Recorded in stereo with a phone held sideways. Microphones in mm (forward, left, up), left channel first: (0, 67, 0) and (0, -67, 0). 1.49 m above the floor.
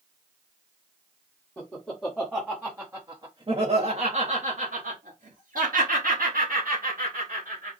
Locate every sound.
1.6 s laughter: 5° left (ahead or behind), 1.6 m; by 7.7 s 70° right (ahead or behind), 2.5 m